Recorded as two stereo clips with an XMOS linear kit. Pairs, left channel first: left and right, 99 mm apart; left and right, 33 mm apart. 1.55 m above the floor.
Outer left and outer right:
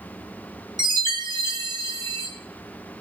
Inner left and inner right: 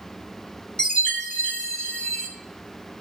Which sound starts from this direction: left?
A chime, at 0.8 s.